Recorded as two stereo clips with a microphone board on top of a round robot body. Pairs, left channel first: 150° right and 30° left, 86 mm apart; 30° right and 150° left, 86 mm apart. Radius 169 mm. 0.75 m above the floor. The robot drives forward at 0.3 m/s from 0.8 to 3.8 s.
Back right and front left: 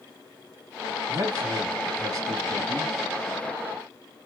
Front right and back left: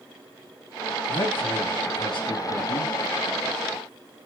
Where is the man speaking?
15° right, 1.7 m; by 3.0 s 20° right, 1.2 m.